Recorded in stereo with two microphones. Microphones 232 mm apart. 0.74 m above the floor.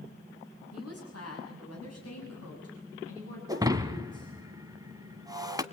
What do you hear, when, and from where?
0.7 s a woman speaking: 70° left (ahead or behind), 7 m
3.5 s breaking glass: 15° right (ahead or behind), 1.4 m